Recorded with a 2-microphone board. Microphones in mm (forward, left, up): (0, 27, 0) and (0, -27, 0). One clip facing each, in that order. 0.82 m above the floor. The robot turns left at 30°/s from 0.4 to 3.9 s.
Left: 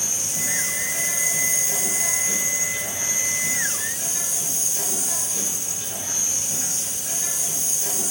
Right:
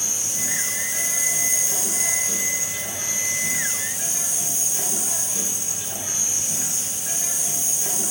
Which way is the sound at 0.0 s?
95° left.